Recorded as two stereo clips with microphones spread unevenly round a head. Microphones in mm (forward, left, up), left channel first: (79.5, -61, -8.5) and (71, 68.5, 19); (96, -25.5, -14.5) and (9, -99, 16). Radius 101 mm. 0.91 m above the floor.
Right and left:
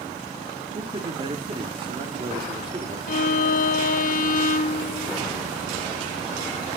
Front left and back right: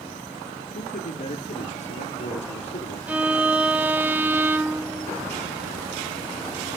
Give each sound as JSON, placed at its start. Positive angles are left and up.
{"t": 0.8, "sound": "a man speaking", "azimuth_deg": 40, "distance_m": 1.9}
{"t": 3.1, "sound": "a violin", "azimuth_deg": -75, "distance_m": 0.9}